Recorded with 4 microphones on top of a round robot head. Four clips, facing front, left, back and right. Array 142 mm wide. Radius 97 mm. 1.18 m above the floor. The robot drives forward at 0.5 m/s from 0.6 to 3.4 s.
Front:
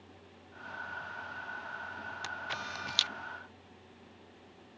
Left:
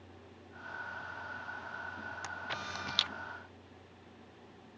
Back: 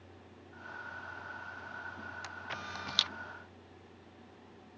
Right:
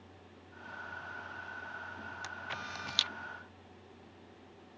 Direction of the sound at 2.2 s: 25° left.